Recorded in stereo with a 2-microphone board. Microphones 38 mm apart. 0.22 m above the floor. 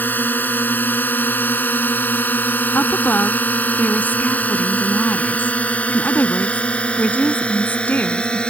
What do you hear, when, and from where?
0.0 s a drone: 60° left (ahead or behind); by 8.5 s 30° left (ahead or behind)
2.8 s a woman speaking: 55° left (ahead or behind)